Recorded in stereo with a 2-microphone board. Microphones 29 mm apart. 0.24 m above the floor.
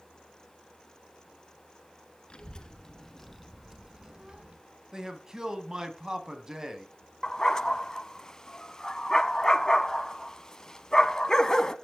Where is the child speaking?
30° left (ahead or behind), 2 m; by 4.6 s 40° right (ahead or behind), 1.9 m.